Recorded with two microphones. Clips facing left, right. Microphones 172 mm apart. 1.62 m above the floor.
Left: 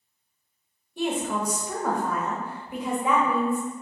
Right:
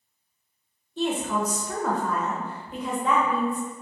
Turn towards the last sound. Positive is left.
turn(degrees=10)  # may be behind; listen again after turning